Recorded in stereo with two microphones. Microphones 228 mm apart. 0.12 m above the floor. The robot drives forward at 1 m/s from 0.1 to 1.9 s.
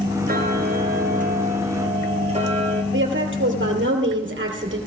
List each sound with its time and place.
0.3 s ticking: 45° right (ahead or behind), 1.3 m; by 2.8 s 30° right (ahead or behind), 1.9 m
2.9 s a woman speaking: 55° right (ahead or behind), 2.5 m